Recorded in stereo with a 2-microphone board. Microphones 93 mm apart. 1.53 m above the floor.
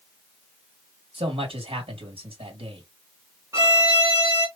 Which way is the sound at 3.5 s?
30° right (ahead or behind).